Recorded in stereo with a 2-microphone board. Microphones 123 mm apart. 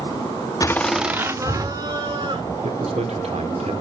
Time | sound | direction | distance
0.6 | laughter | 30° left (ahead or behind) | 0.7 m
2.6 | a man speaking | 60° right (ahead or behind) | 2 m